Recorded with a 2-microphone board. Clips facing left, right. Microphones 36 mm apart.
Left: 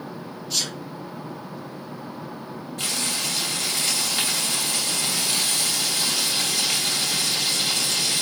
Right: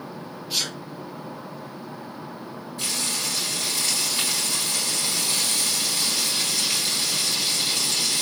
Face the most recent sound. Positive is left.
turn(degrees=65)  # may be behind; listen again after turning